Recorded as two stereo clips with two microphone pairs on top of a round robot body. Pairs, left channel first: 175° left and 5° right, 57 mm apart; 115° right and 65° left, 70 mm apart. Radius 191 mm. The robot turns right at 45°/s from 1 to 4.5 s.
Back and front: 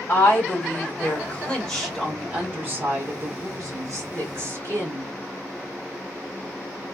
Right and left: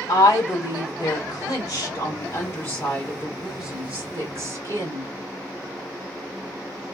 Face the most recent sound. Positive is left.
turn(degrees=25)